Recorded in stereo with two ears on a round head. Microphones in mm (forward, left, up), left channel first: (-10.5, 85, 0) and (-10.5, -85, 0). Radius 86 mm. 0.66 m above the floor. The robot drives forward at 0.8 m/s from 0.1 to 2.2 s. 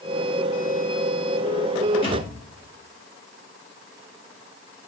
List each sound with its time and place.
2.0 s a thud: 30° left (ahead or behind), 3 m